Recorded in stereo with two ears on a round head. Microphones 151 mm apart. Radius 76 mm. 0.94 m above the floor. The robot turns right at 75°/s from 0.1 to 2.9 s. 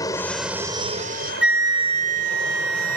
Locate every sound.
0.0 s an aircraft: 160° left; by 3.0 s 10° left
1.4 s a flute: 175° right; by 3.0 s 65° right